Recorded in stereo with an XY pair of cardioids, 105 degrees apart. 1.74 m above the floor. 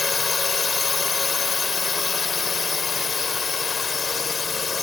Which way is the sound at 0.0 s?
30° left.